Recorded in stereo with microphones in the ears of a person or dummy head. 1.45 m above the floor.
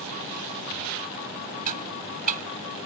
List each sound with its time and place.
1.7 s ticking: 45° right (ahead or behind)